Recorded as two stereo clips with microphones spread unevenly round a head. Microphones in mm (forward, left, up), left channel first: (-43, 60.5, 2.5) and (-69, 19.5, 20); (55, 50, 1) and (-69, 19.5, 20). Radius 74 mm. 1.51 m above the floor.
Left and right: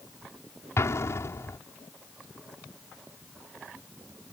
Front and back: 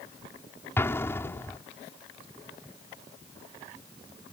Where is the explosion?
90° left.